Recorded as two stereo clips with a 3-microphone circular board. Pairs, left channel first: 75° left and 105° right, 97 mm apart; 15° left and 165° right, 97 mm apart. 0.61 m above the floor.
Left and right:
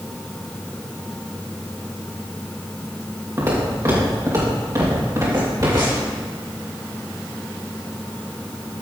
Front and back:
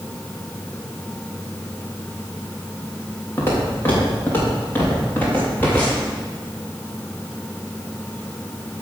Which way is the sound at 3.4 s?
45° right.